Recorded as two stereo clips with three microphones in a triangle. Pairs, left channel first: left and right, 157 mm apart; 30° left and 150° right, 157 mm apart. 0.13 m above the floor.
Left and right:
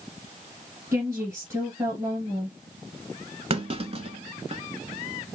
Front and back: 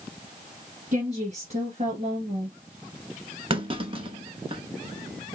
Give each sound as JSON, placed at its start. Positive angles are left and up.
{"t": 0.9, "sound": "a woman speaking", "azimuth_deg": -155, "distance_m": 1.9}
{"t": 3.5, "sound": "a clunk", "azimuth_deg": -115, "distance_m": 0.9}